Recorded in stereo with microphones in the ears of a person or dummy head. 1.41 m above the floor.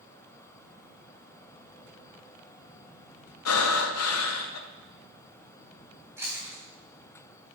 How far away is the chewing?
About 3 m.